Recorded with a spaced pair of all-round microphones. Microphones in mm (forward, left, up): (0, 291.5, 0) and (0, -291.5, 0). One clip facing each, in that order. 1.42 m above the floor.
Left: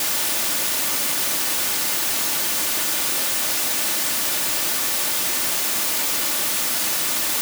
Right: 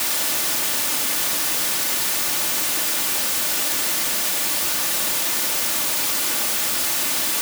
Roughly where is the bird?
No bird in this recording.